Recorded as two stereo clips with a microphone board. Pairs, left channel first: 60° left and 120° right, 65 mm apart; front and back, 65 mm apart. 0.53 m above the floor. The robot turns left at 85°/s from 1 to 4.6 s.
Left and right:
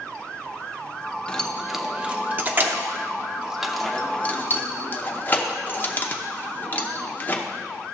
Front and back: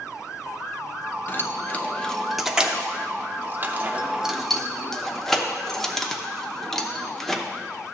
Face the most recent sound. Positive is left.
turn(degrees=80)